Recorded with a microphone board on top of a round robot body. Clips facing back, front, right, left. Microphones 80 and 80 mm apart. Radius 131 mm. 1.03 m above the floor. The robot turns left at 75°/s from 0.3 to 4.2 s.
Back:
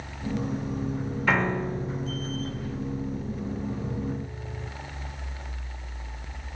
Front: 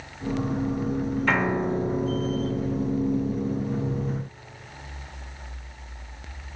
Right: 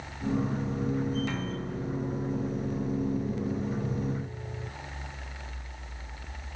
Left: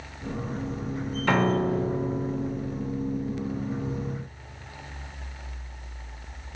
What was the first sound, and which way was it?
A piano, 95° left.